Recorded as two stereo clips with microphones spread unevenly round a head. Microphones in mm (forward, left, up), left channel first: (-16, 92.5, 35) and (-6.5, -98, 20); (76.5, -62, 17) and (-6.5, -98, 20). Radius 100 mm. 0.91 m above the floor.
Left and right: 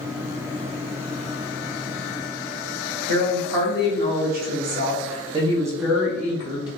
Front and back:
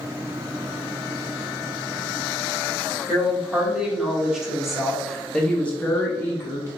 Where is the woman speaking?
80° right, 2.0 m; by 6.7 s 40° left, 0.9 m.